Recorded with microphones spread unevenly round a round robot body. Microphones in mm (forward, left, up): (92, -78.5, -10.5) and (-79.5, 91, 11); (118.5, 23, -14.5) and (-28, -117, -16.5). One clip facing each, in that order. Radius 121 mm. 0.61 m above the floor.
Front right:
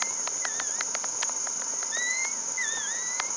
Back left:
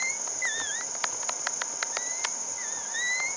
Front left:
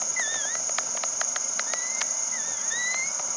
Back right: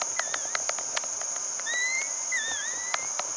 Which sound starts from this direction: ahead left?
An insect, at 0.0 s.